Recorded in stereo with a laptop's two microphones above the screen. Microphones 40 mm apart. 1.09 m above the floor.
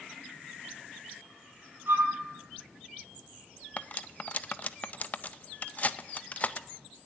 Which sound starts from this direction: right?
A flute, at 1.9 s.